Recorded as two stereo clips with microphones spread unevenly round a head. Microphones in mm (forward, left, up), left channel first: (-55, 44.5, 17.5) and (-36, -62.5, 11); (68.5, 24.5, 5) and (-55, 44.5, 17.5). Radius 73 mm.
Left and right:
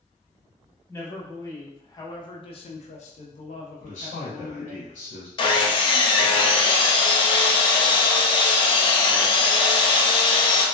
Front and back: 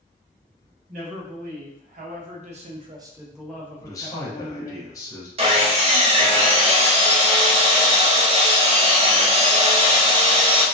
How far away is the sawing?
About 0.7 m.